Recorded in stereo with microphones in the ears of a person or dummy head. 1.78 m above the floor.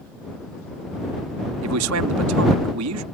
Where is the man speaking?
80° right.